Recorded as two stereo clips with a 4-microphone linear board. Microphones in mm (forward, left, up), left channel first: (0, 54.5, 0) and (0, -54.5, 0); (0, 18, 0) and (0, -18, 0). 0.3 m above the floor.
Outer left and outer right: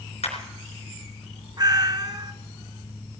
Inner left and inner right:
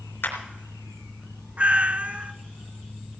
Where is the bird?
I don't hear a bird.